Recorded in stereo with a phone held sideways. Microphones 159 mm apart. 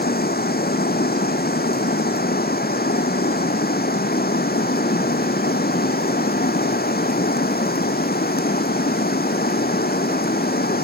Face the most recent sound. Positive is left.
turn(degrees=80)